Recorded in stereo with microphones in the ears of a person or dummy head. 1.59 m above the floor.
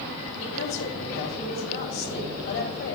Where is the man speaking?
50° left (ahead or behind), 5 m.